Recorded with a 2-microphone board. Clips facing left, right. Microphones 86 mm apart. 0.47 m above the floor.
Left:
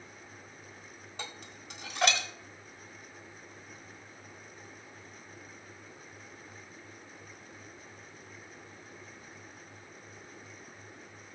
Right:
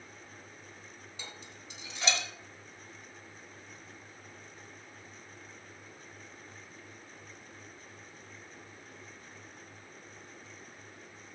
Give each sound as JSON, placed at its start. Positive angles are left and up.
{"t": 1.2, "sound": "dishes clattering", "side_deg": 60, "distance_m": 1.3}